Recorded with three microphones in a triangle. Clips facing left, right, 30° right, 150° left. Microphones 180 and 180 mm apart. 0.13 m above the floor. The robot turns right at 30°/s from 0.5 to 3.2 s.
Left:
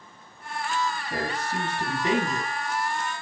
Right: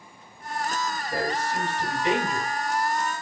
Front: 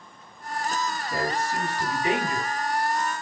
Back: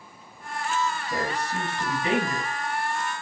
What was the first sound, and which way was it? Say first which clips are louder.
A man speaking: right 2 dB, front 1 dB; 75° left.